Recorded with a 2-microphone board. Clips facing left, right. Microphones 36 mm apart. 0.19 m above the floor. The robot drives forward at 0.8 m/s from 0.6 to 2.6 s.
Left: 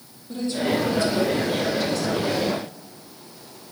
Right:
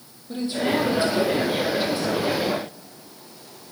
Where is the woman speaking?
25° right (ahead or behind), 7.5 m; by 2.5 s 30° right (ahead or behind), 6 m.